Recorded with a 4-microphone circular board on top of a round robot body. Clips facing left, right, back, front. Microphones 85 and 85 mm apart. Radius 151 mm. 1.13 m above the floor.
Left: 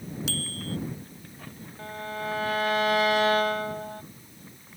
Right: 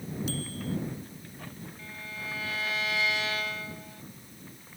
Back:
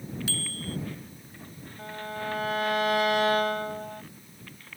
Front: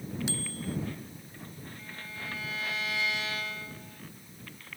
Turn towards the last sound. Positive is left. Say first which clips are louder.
# left 11 dB, back 12 dB
turn(degrees=135)